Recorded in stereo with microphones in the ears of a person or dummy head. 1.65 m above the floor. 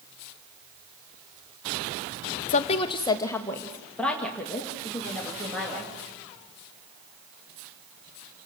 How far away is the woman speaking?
About 0.8 m.